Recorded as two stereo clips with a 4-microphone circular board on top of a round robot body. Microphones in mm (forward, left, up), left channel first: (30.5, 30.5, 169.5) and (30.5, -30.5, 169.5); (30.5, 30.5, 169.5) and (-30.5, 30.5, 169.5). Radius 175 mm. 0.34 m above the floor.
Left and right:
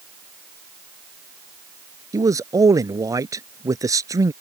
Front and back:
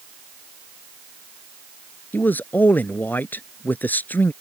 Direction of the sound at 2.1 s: 60° right.